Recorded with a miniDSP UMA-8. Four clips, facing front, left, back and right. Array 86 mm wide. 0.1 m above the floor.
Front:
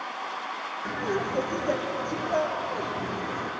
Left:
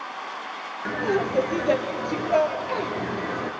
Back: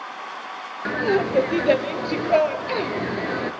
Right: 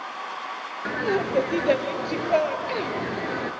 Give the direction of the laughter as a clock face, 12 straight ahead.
5 o'clock.